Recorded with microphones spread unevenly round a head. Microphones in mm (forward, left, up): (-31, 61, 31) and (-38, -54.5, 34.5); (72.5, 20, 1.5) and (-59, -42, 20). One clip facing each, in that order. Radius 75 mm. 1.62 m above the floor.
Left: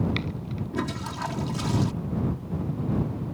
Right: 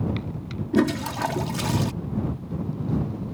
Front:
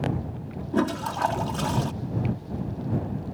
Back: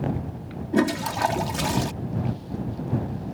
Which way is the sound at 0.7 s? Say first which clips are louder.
Right 11 dB, back 3 dB; 90° right.